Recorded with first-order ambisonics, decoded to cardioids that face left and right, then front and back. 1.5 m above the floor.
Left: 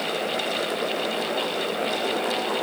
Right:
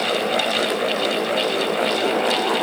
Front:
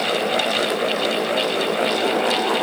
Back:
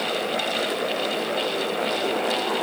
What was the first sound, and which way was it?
Only background noise.